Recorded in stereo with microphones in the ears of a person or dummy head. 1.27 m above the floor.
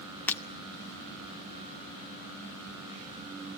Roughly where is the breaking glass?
Centre.